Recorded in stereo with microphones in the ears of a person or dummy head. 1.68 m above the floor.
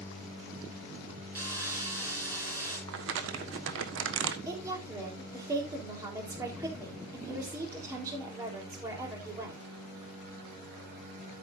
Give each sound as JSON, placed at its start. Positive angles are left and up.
{"t": 1.4, "sound": "sawing", "side_deg": -15, "distance_m": 6.0}
{"t": 2.9, "sound": "crumpling", "side_deg": -85, "distance_m": 1.5}
{"t": 4.5, "sound": "a woman speaking", "side_deg": -20, "distance_m": 3.5}